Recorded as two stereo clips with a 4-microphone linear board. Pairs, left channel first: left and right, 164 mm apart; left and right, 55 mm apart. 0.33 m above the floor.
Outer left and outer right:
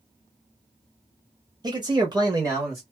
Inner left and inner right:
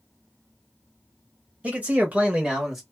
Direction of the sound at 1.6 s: 25° right (ahead or behind).